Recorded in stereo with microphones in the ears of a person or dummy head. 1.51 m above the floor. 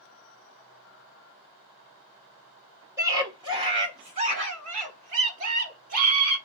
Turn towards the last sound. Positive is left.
turn(degrees=-50)  # may be behind; listen again after turning